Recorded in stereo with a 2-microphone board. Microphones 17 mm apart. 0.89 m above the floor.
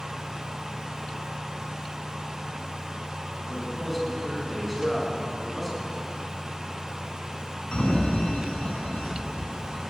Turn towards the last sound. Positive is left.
turn(degrees=60)  # may be behind; listen again after turning